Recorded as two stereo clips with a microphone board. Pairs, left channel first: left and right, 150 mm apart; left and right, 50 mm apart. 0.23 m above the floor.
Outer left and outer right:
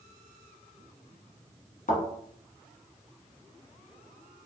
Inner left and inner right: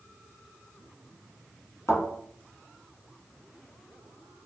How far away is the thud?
About 1.1 m.